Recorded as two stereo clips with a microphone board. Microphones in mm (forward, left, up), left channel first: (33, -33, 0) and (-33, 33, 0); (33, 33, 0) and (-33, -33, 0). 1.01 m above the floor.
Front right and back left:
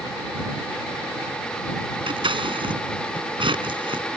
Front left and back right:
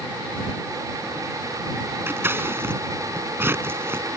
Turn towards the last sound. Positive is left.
turn(degrees=160)